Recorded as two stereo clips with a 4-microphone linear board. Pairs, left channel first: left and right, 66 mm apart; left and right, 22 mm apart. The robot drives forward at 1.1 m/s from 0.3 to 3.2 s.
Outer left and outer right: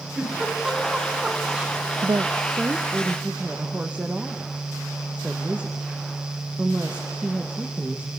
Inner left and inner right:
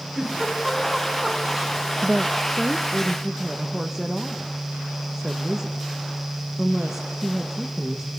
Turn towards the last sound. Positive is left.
turn(degrees=-20)  # may be behind; listen again after turning